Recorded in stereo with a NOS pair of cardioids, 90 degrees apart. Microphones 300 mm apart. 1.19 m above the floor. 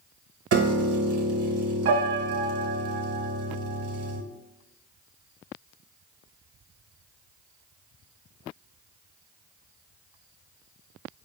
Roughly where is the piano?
Ahead right.